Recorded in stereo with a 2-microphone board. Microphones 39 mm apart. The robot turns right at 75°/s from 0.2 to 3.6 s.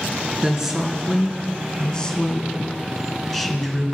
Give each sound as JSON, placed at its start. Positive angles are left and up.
{"t": 0.4, "sound": "a woman speaking", "side_deg": -20, "distance_m": 1.1}